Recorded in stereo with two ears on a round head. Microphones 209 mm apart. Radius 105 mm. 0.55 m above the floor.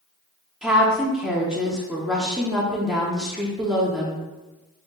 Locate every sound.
0.6 s a woman speaking: 5° right (ahead or behind), 0.8 m